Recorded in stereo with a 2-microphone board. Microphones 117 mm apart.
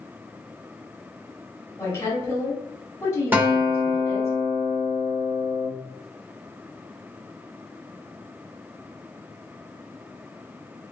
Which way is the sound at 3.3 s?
15° right (ahead or behind).